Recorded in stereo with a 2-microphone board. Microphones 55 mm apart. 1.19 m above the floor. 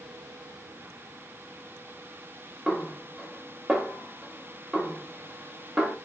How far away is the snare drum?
About 2 m.